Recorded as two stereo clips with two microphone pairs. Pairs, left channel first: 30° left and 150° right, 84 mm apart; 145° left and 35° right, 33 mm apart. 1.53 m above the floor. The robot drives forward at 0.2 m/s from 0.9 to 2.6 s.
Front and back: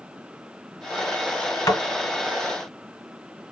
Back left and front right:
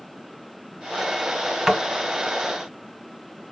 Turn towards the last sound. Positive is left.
turn(degrees=55)